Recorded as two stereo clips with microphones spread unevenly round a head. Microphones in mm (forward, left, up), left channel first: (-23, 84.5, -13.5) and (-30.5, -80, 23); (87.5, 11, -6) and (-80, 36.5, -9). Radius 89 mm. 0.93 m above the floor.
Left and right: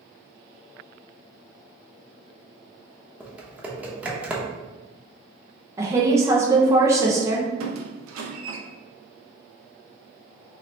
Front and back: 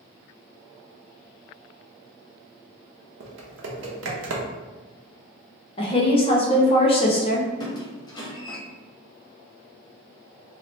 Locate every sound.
3.2 s typing on a keyboard: straight behind, 0.6 m
5.8 s a woman speaking: 10° right, 0.6 m
7.6 s a squeak: 80° right, 0.6 m